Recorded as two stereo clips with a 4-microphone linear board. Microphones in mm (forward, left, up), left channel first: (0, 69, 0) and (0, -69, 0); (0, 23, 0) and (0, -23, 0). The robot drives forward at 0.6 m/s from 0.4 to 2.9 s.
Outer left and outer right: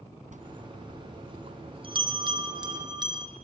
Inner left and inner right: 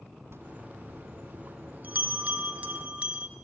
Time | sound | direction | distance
0.3 | a bell | 60° right (ahead or behind) | 1.4 m